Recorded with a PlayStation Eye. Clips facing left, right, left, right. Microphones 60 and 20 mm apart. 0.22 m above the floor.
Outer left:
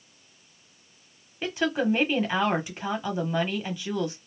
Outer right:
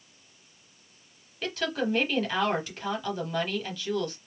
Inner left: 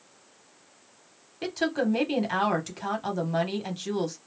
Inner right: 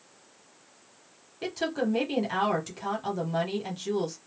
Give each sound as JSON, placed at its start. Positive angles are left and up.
{"t": 1.4, "sound": "a woman speaking", "side_deg": 20, "distance_m": 0.9}